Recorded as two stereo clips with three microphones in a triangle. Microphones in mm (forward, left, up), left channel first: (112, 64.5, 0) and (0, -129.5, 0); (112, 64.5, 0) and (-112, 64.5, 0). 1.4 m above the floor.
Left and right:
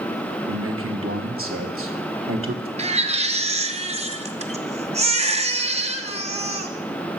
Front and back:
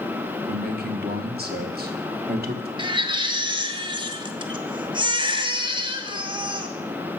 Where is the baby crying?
140° right, 0.8 m.